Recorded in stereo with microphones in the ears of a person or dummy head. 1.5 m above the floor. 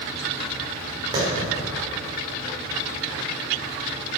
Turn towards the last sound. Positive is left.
turn(degrees=-30)  # may be behind; listen again after turning